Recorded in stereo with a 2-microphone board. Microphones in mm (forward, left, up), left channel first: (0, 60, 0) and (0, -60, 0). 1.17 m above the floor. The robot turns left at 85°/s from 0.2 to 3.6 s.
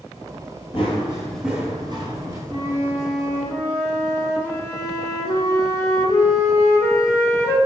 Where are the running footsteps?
50° left (ahead or behind), 1.7 m; by 2.4 s 25° right (ahead or behind), 1.5 m.